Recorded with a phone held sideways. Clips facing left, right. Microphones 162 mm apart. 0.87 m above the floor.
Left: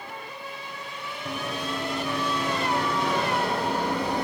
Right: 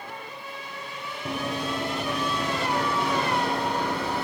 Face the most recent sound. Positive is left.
turn(degrees=20)  # may be behind; listen again after turning